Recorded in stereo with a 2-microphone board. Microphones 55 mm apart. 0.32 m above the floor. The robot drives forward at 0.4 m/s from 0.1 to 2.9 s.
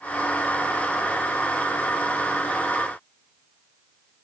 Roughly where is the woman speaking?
No woman speaking in this recording.